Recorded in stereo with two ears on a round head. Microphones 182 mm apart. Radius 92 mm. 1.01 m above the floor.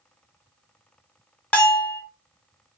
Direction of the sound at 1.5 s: 5° left (ahead or behind).